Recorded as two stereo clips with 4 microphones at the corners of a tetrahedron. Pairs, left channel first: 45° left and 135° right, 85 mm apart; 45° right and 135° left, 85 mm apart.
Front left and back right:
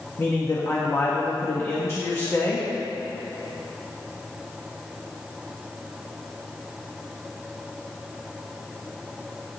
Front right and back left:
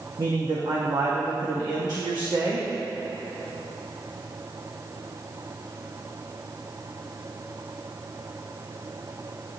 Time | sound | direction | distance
0.2 | a man speaking | 100° left | 1.5 m